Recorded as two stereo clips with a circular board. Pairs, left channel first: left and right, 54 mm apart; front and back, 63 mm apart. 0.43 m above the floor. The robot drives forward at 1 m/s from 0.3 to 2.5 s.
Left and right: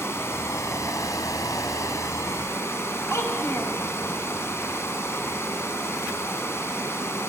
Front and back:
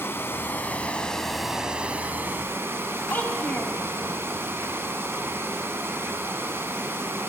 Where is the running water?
50° left, 1.8 m; by 7.3 s 130° left, 1.8 m.